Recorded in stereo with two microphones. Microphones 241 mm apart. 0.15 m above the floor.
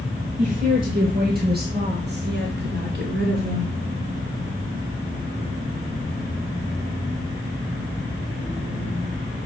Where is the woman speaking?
35° right (ahead or behind), 3 m; by 3.7 s 40° right (ahead or behind), 1.5 m.